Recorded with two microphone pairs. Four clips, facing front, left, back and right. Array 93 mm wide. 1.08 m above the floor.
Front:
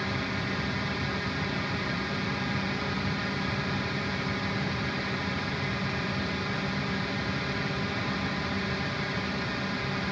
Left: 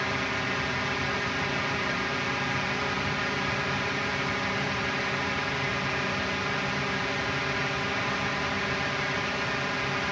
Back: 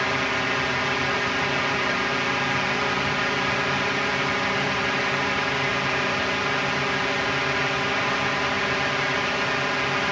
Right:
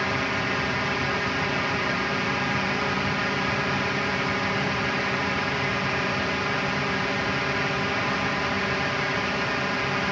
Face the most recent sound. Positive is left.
turn(degrees=-160)